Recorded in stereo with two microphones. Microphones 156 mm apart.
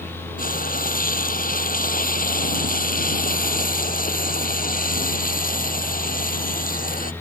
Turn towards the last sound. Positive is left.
turn(degrees=60)  # may be behind; listen again after turning